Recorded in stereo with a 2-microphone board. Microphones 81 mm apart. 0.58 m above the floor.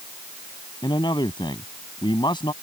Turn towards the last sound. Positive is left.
turn(degrees=75)  # may be behind; listen again after turning